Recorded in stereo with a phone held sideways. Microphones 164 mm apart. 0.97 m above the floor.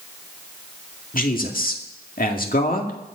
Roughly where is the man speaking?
Left.